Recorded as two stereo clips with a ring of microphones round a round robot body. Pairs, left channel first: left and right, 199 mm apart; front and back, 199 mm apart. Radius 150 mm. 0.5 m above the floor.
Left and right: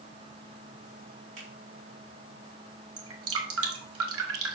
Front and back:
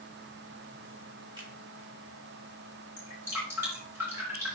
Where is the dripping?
95° right, 1.2 m.